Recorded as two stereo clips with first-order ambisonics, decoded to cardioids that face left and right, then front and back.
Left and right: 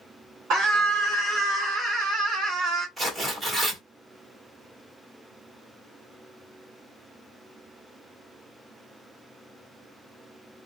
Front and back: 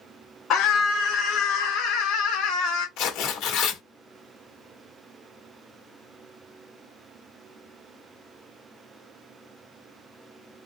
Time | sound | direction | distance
0.5 | a scream | 55° right | 2 m
3.0 | tearing paper | 20° right | 1.7 m